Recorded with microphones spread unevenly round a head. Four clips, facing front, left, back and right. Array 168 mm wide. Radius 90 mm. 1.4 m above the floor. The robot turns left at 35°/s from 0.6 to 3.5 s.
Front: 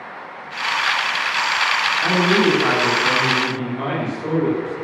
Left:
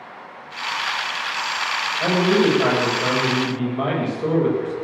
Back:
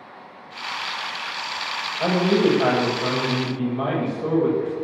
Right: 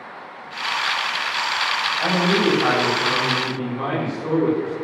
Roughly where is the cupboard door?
I don't hear a cupboard door.